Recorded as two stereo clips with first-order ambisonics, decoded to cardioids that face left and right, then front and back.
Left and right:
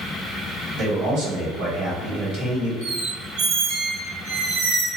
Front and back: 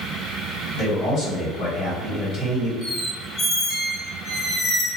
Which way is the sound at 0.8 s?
60° right.